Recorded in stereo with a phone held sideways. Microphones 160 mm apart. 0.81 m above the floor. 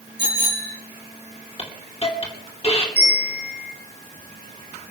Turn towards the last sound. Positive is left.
turn(degrees=-85)